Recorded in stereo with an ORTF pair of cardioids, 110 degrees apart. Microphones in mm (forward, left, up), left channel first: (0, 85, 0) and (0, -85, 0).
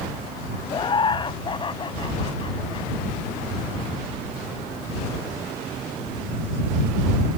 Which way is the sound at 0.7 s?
30° left.